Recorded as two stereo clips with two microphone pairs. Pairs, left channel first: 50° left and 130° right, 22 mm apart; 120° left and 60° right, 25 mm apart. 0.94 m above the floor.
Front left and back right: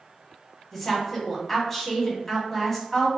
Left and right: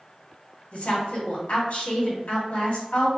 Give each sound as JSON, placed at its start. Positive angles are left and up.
{"t": 0.7, "sound": "a woman speaking", "azimuth_deg": 125, "distance_m": 1.8}